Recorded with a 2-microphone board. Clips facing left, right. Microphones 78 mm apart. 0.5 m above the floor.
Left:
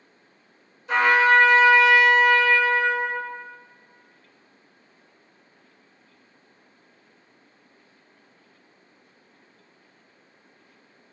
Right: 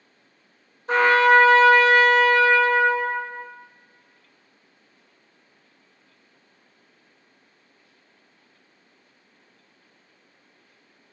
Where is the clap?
I don't hear a clap.